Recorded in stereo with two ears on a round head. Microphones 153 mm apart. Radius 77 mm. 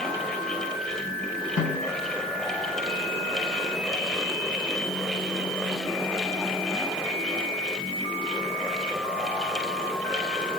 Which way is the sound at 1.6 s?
80° left.